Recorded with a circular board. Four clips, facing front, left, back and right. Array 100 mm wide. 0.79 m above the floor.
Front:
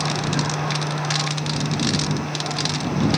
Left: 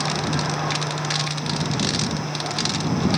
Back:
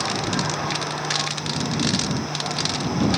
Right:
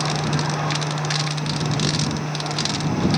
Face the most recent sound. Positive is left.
No sound to turn to.